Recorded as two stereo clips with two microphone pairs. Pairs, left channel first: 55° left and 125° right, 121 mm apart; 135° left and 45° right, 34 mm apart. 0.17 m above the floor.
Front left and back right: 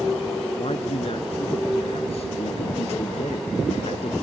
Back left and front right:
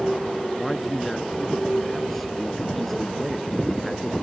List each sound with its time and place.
0.6 s a man speaking: 50° left